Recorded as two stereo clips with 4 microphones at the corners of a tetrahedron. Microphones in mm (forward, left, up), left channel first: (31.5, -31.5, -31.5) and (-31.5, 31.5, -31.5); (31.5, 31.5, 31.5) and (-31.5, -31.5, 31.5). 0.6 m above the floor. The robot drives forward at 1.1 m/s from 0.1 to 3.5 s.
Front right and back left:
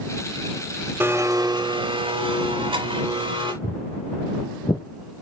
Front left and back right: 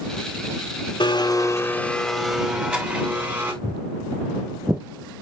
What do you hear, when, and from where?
1.0 s a blender: 70° left, 1.0 m; by 3.5 s 160° left, 2.5 m
3.6 s footsteps: 60° right, 2.5 m; by 4.8 s 65° right, 1.4 m